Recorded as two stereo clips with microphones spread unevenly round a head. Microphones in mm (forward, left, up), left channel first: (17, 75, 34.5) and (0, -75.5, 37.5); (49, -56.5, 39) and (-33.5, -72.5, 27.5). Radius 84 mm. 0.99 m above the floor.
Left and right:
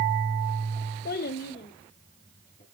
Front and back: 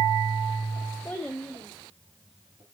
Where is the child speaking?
90° left, 0.5 m; by 2.6 s 125° left, 1.9 m.